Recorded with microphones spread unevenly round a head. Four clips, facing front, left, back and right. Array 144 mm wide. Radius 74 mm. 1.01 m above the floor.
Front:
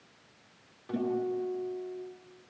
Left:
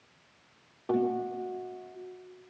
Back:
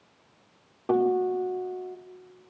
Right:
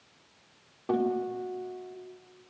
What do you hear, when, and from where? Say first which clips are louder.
0.9 s a guitar: even, back 8 dB; 165° right, 4 m